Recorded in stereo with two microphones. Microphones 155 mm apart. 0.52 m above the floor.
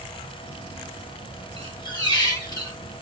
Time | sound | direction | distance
1.6 | a squeak | 30° left (ahead or behind) | 2 m